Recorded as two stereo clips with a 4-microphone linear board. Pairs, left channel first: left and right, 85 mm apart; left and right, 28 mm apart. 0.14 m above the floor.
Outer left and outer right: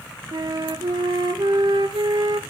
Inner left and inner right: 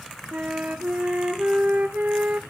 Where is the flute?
65° right (ahead or behind), 0.7 m.